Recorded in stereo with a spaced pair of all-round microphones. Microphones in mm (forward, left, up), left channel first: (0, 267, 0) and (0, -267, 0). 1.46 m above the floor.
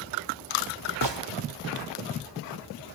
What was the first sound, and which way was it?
A gunshot, 50° right (ahead or behind).